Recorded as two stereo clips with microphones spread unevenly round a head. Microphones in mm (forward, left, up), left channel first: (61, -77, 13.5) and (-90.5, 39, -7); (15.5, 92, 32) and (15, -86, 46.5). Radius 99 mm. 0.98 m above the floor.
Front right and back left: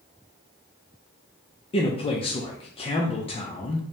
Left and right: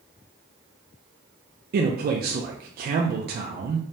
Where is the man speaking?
95° right, 0.5 m.